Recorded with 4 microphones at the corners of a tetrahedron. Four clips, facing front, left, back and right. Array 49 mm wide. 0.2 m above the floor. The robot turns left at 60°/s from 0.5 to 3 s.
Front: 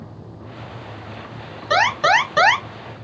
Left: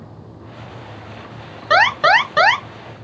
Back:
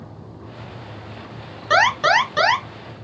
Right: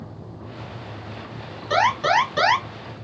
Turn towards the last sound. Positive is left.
turn(degrees=25)